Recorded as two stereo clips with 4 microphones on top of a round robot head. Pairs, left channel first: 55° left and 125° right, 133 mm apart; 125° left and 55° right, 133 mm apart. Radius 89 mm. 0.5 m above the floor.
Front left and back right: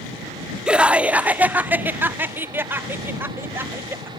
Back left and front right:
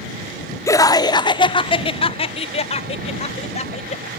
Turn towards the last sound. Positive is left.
turn(degrees=160)